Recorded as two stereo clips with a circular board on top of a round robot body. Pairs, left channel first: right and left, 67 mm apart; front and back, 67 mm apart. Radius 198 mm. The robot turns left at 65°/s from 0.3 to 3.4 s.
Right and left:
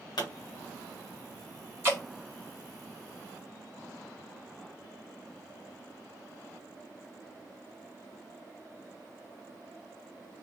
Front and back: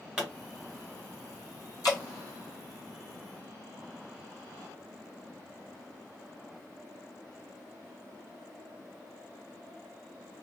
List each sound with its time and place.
0.2 s a pop: 100° right, 0.6 m
1.8 s dripping: 35° left, 1.7 m; by 2.0 s 20° left, 1.7 m